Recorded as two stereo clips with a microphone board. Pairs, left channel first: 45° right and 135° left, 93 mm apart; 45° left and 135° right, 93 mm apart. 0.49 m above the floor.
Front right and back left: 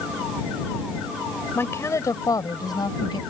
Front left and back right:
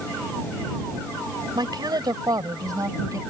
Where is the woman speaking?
105° right; by 3.2 s 85° right.